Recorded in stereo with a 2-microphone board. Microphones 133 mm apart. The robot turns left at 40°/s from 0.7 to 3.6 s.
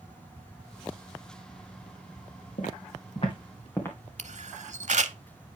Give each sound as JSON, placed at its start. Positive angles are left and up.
{"t": 2.6, "sound": "footsteps", "side_deg": 75, "distance_m": 3.0}
{"t": 4.2, "sound": "a camera shutter", "side_deg": -60, "distance_m": 0.6}